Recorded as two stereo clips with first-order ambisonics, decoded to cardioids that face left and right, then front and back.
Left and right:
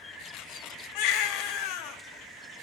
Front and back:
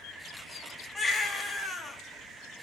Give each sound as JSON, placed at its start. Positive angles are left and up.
{"t": 0.9, "sound": "a baby crying", "azimuth_deg": 80, "distance_m": 0.8}